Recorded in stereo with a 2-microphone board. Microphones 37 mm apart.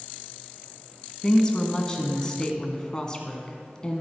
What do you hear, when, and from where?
1.2 s a woman speaking: 20° left (ahead or behind), 1.3 m